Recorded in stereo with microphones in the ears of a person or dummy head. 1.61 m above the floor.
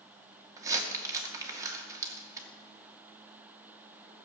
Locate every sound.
0.6 s crumpling: 20° right (ahead or behind), 2 m